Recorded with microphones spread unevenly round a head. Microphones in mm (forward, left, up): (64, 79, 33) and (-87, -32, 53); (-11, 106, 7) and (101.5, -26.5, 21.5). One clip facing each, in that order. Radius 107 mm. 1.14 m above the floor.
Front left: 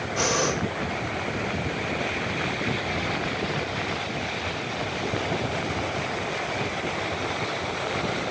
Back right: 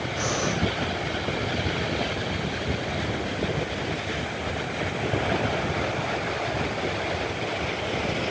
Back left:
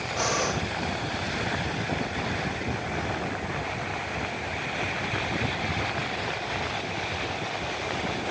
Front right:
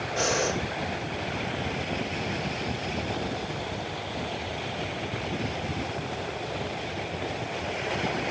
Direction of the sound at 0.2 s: 10° left.